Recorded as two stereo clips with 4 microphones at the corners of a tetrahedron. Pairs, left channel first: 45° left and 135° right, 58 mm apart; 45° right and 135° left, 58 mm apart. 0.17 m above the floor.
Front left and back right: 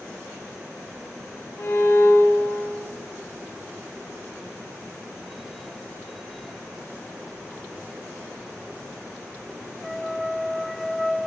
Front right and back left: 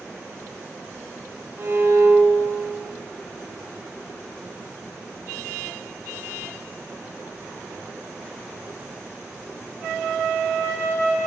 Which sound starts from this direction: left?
A violin, at 1.6 s.